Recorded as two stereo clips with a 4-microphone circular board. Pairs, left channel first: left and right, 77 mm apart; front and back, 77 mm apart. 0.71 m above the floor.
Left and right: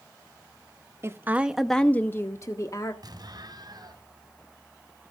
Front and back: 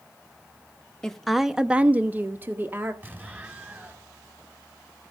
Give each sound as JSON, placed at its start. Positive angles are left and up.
{"t": 1.0, "sound": "a woman speaking", "azimuth_deg": -80, "distance_m": 0.8}
{"t": 3.0, "sound": "an explosion", "azimuth_deg": -115, "distance_m": 2.5}